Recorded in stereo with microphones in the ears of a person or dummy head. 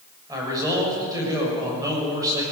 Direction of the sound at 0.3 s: 20° right (ahead or behind).